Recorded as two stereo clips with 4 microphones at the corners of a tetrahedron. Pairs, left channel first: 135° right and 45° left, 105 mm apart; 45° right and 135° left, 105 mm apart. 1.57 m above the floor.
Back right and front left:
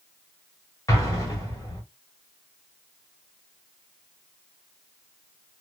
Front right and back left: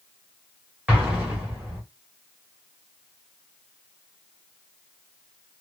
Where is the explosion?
160° right, 1.3 m.